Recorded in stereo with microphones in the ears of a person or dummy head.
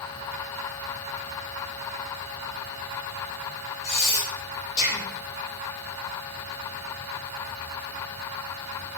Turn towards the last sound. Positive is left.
turn(degrees=30)  # may be behind; listen again after turning